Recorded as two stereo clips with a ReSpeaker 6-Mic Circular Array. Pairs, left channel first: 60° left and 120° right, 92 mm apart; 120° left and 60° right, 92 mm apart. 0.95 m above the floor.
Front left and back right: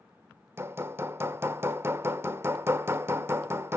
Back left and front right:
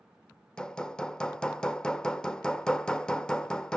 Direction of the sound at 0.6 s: 165° right.